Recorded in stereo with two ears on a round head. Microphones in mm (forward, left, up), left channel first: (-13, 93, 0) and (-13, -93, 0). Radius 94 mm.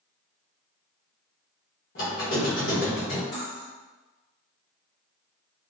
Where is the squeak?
45° left (ahead or behind), 0.9 m.